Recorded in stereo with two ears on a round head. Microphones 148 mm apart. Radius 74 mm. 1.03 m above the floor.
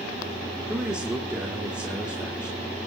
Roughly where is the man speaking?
Centre.